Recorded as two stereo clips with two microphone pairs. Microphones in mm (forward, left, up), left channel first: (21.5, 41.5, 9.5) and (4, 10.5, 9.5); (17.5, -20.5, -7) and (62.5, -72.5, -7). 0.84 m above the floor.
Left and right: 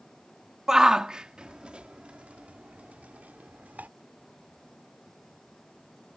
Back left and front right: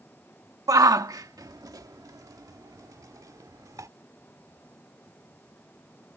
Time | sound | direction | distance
0.7 | a shout | 45° right | ?